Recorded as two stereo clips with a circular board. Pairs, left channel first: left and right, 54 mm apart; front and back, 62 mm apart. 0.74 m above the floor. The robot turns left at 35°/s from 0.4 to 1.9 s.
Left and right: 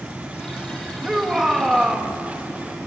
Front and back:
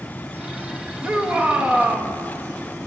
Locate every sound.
1.0 s a shout: 150° right, 1.0 m; by 2.1 s straight behind, 1.0 m